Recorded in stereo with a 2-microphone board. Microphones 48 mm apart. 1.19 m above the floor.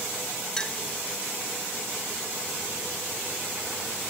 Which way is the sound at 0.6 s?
15° left (ahead or behind).